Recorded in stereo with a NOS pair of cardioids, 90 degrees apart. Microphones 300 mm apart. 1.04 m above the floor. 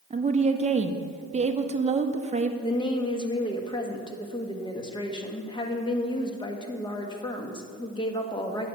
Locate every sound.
0.1 s a woman speaking: 20° right, 0.8 m
2.6 s a woman speaking: 15° left, 1.4 m